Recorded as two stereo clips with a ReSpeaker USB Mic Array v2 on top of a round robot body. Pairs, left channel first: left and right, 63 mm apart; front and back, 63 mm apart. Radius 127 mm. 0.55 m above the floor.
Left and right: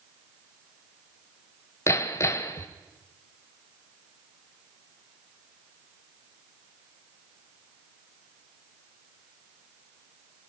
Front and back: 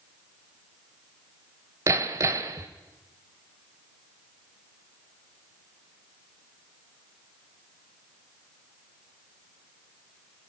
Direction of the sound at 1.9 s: 135° left.